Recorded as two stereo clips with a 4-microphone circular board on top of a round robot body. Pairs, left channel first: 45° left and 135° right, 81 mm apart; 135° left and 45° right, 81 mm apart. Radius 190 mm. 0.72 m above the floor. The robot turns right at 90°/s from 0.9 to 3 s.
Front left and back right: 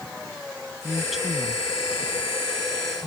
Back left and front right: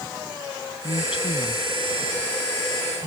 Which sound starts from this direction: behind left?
A woman speaking, at 0.8 s.